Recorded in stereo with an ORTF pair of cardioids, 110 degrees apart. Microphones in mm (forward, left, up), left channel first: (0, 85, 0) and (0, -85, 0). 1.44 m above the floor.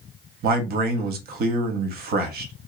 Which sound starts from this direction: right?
A man speaking, at 0.4 s.